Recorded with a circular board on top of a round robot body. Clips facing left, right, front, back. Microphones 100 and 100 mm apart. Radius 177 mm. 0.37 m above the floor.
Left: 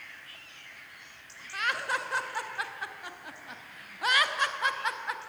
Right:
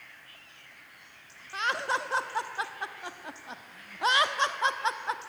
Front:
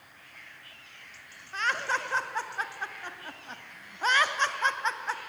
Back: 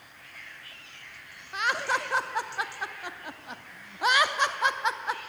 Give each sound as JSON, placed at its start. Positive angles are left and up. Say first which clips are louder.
{"t": 1.5, "sound": "laughter", "louder": "right 2 dB, back 2 dB", "azimuth_deg": -115, "distance_m": 1.0}